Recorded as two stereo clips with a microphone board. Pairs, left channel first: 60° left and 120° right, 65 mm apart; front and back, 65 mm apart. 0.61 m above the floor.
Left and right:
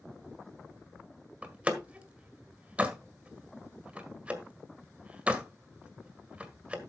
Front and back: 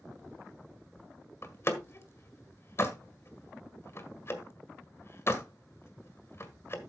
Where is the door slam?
50° right, 1.6 m.